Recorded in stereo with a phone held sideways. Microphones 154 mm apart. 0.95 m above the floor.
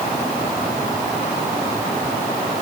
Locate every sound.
Only background noise.